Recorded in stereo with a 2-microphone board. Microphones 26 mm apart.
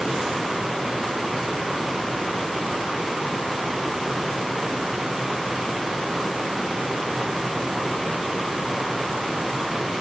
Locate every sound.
Only background noise.